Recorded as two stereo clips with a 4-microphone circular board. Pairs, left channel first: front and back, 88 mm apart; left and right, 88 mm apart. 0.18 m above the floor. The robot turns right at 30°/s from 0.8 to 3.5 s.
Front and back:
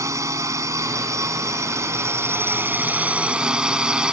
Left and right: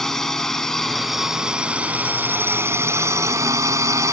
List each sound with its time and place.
0.0 s a drone: 175° left; by 4.1 s 105° right